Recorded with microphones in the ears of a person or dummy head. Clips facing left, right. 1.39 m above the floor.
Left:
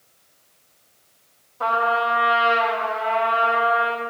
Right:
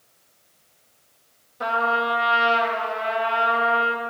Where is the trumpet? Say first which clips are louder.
Left 2 dB; 20° right (ahead or behind), 1.2 m.